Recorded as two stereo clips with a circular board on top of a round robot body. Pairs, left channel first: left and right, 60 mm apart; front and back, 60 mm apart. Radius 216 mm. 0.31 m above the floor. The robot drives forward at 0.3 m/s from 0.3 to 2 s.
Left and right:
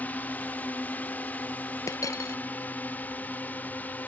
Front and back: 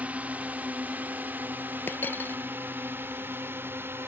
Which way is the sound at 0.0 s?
130° left.